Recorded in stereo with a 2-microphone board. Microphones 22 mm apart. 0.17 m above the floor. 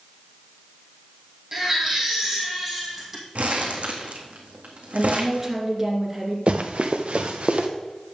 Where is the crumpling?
80° right, 1.9 m.